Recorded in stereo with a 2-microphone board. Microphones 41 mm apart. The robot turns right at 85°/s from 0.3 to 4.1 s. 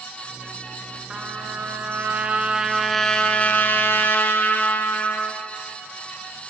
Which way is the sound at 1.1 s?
150° right.